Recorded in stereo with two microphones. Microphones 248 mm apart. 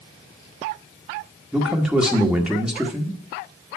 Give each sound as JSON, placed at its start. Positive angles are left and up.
{"t": 1.5, "sound": "a man speaking", "side_deg": -5, "distance_m": 1.4}